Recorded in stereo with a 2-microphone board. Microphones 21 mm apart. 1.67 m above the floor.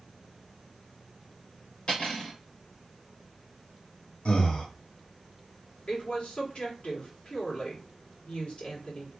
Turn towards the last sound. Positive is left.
turn(degrees=70)  # may be behind; listen again after turning